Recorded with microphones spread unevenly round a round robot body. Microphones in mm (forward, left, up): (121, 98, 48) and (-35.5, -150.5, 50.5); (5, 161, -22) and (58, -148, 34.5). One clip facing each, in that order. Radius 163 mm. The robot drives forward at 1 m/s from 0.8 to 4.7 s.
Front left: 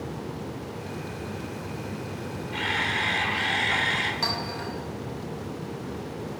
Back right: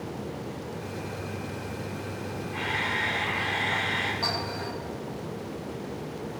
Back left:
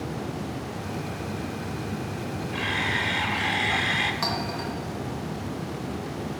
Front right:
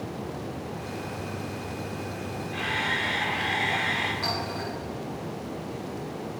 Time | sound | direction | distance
2.5 | a camera shutter | 30° left | 1.9 m
4.2 | a clink | 120° left | 2.5 m